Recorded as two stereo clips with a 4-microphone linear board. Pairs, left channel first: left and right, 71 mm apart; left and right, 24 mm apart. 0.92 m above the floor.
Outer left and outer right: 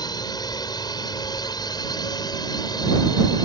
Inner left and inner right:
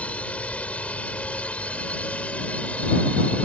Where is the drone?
70° left (ahead or behind).